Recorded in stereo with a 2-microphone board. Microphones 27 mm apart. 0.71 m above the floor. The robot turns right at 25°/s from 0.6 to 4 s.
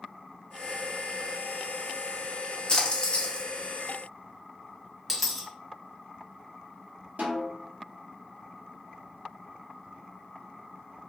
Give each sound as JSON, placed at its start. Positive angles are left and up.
{"t": 2.7, "sound": "a splash", "side_deg": 30, "distance_m": 0.7}
{"t": 5.1, "sound": "a dropped coin", "side_deg": 0, "distance_m": 0.7}
{"t": 7.2, "sound": "a snare drum", "side_deg": -65, "distance_m": 0.8}